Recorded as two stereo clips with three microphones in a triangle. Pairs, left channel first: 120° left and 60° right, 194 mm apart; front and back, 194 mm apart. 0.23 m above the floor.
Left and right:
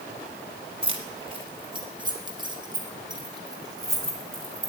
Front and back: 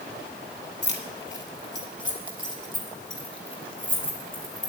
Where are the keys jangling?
Straight ahead, 1.7 m; by 4.7 s 10° left, 3.5 m.